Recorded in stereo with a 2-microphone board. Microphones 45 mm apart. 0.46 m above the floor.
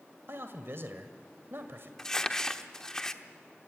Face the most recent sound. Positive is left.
turn(degrees=15)  # may be behind; listen again after turning